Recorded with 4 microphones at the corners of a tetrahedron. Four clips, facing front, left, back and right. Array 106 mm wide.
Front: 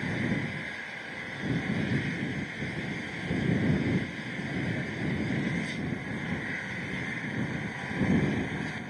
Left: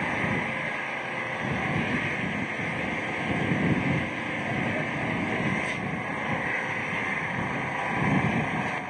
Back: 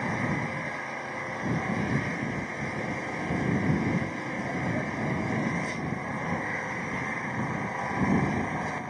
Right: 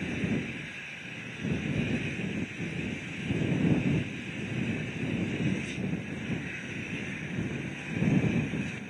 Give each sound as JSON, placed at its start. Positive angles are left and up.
{"t": 0.0, "sound": "an engine running", "azimuth_deg": 120}